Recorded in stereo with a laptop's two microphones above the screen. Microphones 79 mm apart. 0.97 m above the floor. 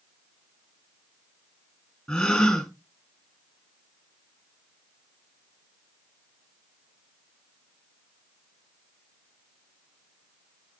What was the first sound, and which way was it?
A gasp, 5° left (ahead or behind).